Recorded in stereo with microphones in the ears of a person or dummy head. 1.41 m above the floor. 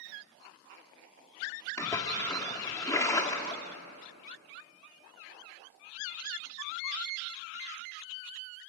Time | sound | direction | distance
1.8 | a splash | 15° left (ahead or behind) | 2.0 m